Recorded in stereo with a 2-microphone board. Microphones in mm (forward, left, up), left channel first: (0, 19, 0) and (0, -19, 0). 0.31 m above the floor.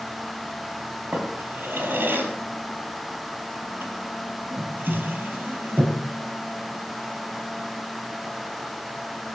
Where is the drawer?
65° right (ahead or behind), 3.5 m.